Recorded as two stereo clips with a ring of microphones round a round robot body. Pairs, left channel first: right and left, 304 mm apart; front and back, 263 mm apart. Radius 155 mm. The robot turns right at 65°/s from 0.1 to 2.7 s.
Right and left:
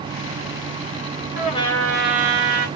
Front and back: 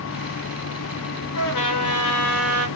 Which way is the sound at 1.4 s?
30° right.